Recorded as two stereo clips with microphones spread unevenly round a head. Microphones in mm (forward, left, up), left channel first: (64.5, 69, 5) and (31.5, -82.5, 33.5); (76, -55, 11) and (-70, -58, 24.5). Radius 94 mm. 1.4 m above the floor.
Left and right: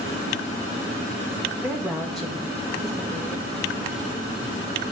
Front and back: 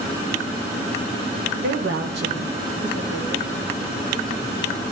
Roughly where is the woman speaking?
Behind.